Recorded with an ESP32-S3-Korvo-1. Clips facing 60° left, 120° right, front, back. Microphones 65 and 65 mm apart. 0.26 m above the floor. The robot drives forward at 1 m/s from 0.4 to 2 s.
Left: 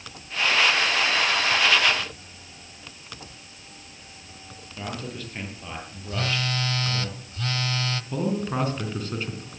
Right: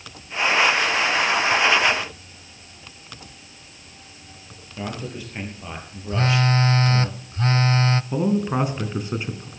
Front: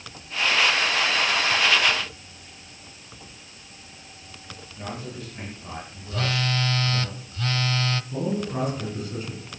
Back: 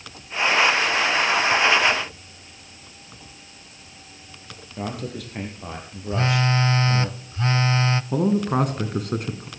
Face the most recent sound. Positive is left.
turn(degrees=170)